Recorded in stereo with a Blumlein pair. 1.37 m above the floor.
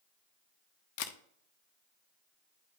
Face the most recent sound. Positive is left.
turn(degrees=45)